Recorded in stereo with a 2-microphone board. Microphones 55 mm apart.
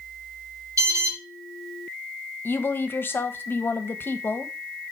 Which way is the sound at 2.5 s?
40° left (ahead or behind).